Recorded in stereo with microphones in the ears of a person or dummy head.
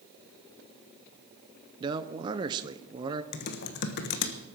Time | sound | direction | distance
1.8 | a man speaking | 20° right (ahead or behind) | 0.6 m
3.3 | typing on a keyboard | 50° left (ahead or behind) | 1.2 m